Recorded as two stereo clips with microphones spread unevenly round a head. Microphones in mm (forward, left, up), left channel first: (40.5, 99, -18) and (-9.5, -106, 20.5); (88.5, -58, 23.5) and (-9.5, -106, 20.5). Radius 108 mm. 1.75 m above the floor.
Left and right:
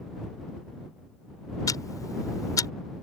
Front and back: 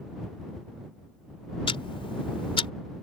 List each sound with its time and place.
1.7 s ticking: straight ahead